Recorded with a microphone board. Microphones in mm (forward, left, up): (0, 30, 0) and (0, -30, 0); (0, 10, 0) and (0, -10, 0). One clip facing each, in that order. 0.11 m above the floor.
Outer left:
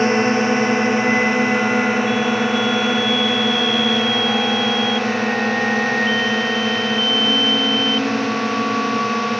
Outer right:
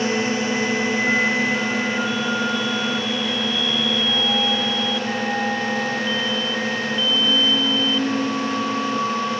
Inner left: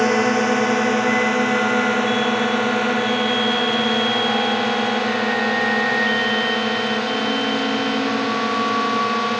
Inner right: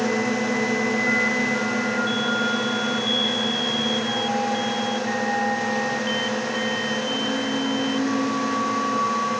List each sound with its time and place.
0.0 s a drone: 45° left (ahead or behind); by 9.4 s 60° left (ahead or behind)